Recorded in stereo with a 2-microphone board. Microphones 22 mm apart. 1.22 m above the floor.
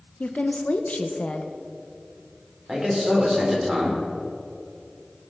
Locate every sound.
0.2 s a woman speaking: 70° left (ahead or behind), 0.9 m
2.7 s a man speaking: 15° right (ahead or behind), 4 m